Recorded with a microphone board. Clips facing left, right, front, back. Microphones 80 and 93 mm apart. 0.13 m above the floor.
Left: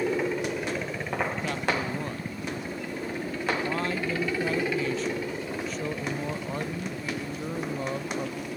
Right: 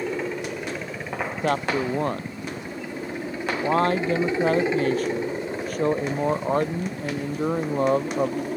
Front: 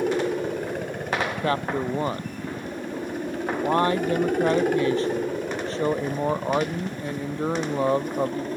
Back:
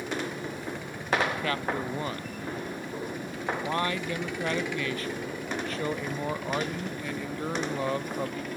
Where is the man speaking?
55° right.